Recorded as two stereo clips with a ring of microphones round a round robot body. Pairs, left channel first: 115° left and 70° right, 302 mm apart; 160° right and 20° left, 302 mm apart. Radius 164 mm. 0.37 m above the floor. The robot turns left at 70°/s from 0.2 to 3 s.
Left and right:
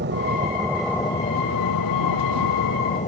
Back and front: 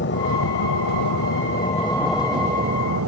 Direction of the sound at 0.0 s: 115° right.